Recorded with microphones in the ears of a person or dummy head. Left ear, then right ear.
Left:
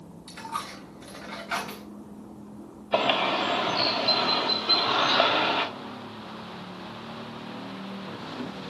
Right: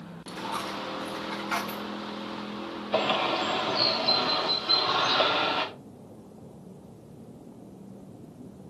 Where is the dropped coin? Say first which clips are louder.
Right 2 dB; 5° right (ahead or behind), 4 m.